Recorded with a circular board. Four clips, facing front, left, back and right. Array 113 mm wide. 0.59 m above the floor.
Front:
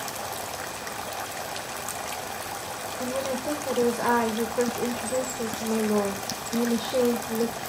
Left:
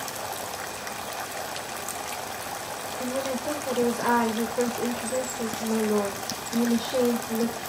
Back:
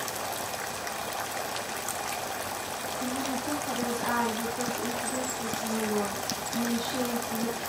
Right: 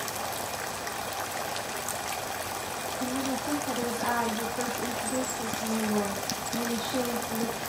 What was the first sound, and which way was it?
A woman speaking, 35° left.